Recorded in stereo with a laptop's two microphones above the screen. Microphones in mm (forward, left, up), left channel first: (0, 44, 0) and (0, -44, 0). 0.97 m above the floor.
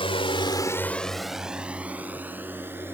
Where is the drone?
75° left (ahead or behind); by 3.0 s 25° right (ahead or behind).